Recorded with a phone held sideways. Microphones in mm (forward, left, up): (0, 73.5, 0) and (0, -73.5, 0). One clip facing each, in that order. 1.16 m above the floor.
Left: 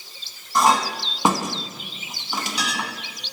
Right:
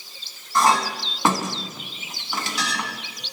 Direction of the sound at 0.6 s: 15° left (ahead or behind).